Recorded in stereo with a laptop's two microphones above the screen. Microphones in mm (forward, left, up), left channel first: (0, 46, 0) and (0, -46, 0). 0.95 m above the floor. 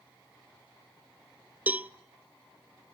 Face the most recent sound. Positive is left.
turn(degrees=-20)  # may be behind; listen again after turning